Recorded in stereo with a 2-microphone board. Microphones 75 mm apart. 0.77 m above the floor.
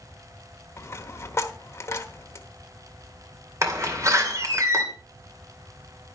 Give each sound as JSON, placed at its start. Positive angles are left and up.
{"t": 0.8, "sound": "a dropped coin", "side_deg": 35, "distance_m": 1.3}
{"t": 3.6, "sound": "a door slam", "side_deg": -45, "distance_m": 2.0}